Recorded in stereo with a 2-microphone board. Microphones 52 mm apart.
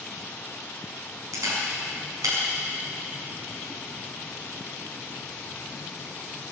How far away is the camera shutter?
About 6.5 m.